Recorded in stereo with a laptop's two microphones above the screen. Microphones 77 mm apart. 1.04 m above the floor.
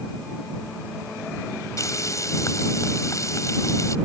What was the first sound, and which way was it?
Frying, 45° left (ahead or behind).